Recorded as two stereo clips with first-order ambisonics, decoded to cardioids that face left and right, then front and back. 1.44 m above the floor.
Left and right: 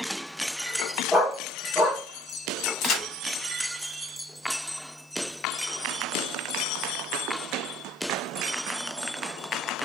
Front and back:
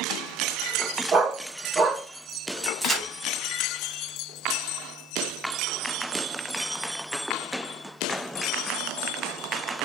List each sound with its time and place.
1.1 s a dog barking: 160° left, 1.1 m
2.8 s a crack: 100° left, 1.8 m